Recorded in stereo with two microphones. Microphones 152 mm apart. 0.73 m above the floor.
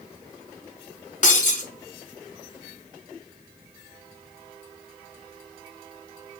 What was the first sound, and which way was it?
Breaking glass, 55° left (ahead or behind).